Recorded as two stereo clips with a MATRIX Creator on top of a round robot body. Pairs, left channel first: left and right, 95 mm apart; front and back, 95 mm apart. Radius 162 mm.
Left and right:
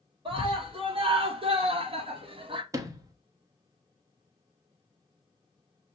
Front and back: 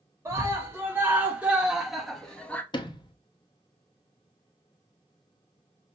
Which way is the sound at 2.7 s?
35° right.